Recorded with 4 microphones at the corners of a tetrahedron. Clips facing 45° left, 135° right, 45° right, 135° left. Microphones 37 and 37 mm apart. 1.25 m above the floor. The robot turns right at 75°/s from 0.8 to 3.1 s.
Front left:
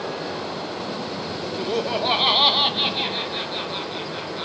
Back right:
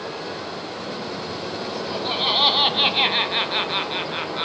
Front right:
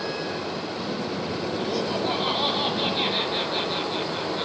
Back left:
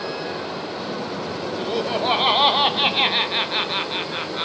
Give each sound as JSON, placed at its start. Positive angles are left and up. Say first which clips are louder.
{"t": 0.0, "sound": "running water", "louder": "front left 2 dB, back left 1 dB", "azimuth_deg": 80, "distance_m": 5.5}
{"t": 1.6, "sound": "laughter", "louder": "front left 7 dB, back left 5 dB", "azimuth_deg": 65, "distance_m": 0.5}